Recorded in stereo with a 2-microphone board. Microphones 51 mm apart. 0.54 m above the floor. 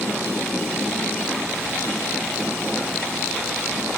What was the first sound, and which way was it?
Only background noise.